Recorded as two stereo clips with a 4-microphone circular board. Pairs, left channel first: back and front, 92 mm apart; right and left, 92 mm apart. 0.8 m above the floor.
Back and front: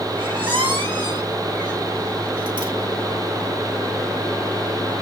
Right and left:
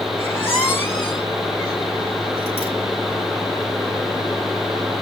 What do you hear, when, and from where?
0.2 s a squeak: 25° right, 2.5 m